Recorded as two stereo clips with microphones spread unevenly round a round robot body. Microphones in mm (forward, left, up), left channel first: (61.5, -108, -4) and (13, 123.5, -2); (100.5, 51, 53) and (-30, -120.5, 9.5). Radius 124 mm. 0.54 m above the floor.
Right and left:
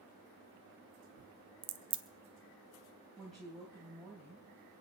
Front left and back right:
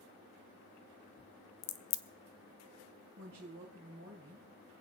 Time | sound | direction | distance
1.6 | a crack | 40° left | 1.1 m
3.2 | a woman speaking | 165° right | 3 m